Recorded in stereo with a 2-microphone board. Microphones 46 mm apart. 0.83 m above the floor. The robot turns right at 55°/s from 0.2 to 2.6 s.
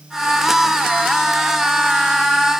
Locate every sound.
Only background noise.